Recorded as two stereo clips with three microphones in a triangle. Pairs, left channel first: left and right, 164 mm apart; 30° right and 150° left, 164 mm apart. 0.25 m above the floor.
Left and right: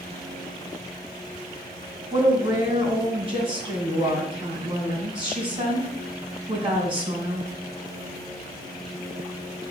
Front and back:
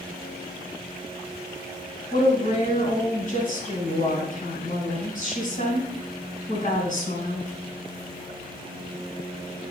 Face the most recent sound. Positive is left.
turn(degrees=-40)